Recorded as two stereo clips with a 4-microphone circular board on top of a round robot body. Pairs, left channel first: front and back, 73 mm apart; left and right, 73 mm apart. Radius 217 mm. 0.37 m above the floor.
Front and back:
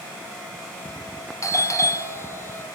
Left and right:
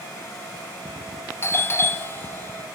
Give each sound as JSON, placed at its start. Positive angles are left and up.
{"t": 1.4, "sound": "a doorbell", "azimuth_deg": 35, "distance_m": 2.5}